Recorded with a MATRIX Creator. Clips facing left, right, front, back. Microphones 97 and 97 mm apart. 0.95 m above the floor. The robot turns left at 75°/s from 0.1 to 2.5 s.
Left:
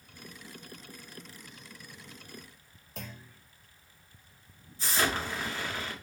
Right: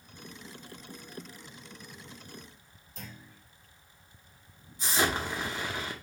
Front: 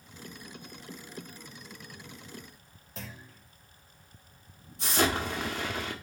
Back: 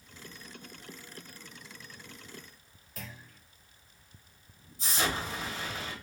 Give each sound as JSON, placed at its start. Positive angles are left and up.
{"t": 3.0, "sound": "a clunk", "azimuth_deg": 65, "distance_m": 1.1}
{"t": 4.8, "sound": "an explosion", "azimuth_deg": -20, "distance_m": 0.9}